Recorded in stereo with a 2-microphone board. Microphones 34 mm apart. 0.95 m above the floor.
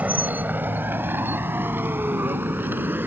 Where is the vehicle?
45° right (ahead or behind); by 3.1 s 70° right (ahead or behind).